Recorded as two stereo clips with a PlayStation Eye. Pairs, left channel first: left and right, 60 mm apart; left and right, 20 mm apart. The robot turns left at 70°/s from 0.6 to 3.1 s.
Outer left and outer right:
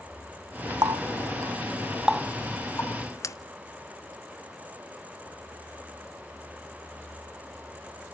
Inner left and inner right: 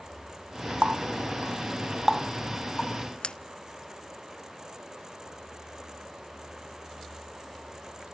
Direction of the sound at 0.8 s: 75° right (ahead or behind).